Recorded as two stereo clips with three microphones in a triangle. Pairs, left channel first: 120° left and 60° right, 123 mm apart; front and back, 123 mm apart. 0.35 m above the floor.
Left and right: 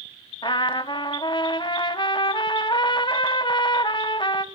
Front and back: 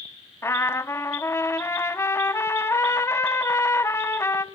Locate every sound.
0.4 s a trumpet: 65° left, 0.6 m